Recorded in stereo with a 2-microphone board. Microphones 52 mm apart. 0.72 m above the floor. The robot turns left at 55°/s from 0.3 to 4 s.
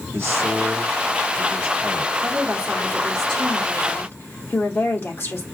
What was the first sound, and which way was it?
A man speaking, 55° right.